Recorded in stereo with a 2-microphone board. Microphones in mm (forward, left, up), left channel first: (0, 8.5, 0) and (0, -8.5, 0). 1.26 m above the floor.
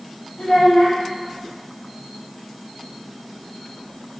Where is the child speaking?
70° left (ahead or behind), 1.9 m.